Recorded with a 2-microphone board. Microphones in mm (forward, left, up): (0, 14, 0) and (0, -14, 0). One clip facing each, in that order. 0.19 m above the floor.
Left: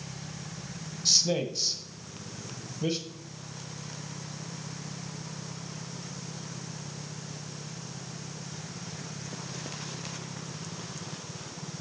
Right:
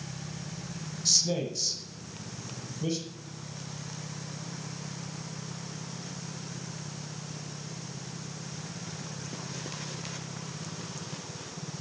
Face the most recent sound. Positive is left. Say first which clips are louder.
# left 2 dB
turn(degrees=20)  # may be behind; listen again after turning